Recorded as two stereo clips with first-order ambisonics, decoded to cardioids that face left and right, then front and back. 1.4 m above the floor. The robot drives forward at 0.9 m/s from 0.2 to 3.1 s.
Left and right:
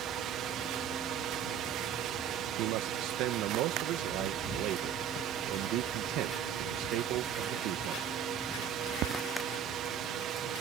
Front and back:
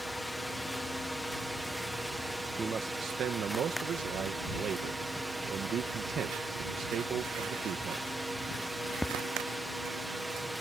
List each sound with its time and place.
0.0 s a drone: 90° right; by 10.6 s 100° right
2.6 s a man speaking: 105° right; by 8.2 s 125° right